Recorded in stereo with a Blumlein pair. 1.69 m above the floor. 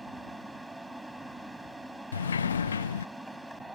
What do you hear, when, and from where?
0.0 s a fan: 5° right
2.1 s a sliding door: 70° left